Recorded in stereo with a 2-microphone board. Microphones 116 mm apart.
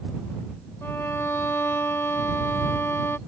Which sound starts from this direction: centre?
A violin, at 0.8 s.